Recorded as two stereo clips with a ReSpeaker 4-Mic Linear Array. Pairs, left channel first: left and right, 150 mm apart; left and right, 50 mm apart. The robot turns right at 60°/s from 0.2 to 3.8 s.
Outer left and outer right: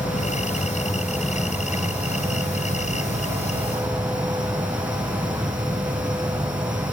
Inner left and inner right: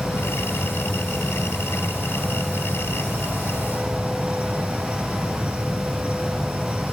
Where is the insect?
115° left, 0.9 m; by 6.9 s 30° right, 0.9 m.